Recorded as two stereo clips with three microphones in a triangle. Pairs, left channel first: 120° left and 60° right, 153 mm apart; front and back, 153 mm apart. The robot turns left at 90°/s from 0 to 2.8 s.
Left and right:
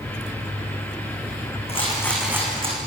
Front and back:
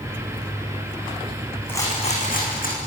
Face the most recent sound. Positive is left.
turn(degrees=-25)